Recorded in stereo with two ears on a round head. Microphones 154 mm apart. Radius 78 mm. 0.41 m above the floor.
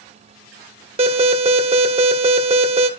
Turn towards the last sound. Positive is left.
turn(degrees=-35)  # may be behind; listen again after turning